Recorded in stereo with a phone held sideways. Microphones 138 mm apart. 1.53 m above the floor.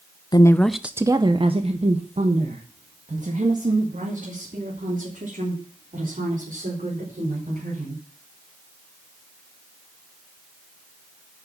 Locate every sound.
0.3 s a woman speaking: 30° left (ahead or behind), 0.5 m; by 8.0 s 75° right (ahead or behind), 5 m